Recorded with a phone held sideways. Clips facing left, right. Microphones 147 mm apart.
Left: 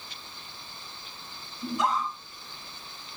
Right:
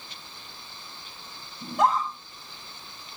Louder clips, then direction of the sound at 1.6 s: Right 4 dB; 60° right (ahead or behind).